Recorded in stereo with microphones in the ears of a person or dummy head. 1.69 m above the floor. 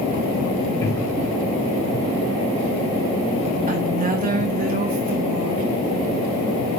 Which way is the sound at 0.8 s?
20° left (ahead or behind).